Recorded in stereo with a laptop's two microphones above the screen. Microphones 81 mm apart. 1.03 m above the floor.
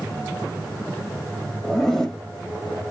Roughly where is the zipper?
Centre.